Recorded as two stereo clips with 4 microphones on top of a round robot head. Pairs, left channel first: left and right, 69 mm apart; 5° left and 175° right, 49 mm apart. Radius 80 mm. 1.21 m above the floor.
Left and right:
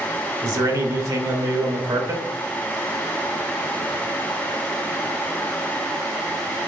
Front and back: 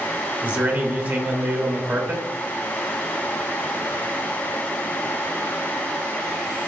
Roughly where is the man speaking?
Behind right.